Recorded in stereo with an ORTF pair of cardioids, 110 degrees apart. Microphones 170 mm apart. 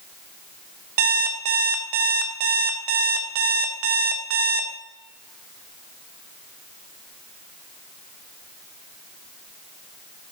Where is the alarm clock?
65° right, 0.5 m.